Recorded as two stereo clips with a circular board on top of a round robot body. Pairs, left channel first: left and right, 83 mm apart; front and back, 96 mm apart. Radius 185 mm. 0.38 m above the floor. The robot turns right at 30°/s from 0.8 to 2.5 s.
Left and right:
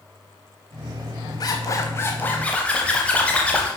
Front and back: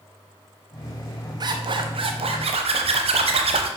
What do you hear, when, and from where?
1.4 s a zipper: 135° left, 0.6 m; by 3.7 s 165° left, 0.6 m